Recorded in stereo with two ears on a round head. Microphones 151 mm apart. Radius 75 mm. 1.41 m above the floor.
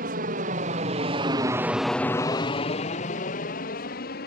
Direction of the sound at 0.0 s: 55° right (ahead or behind).